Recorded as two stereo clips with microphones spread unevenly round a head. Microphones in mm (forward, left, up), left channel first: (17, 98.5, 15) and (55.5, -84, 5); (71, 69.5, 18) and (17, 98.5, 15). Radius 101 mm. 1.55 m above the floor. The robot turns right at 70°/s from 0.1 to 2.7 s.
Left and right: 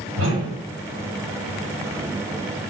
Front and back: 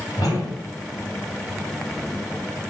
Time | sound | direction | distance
0.2 | a whoosh | 100° right | 5 m